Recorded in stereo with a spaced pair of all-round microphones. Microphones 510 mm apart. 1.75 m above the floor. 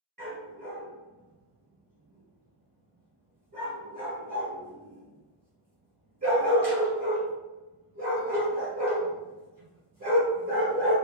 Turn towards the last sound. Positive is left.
turn(degrees=-35)  # may be behind; listen again after turning